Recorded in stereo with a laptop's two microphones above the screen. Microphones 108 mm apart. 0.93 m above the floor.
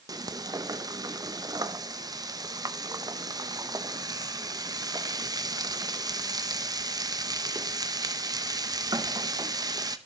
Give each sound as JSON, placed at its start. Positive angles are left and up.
{"t": 0.1, "sound": "frying", "side_deg": -35, "distance_m": 0.8}